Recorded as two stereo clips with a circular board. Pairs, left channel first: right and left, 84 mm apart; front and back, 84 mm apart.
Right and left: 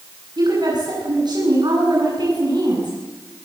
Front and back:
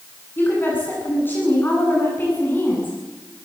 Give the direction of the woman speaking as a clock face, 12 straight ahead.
10 o'clock.